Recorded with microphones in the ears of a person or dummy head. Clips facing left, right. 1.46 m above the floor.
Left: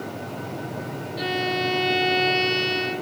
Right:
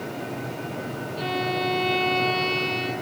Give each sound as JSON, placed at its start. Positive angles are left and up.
{"t": 1.2, "sound": "a violin", "side_deg": 20, "distance_m": 1.7}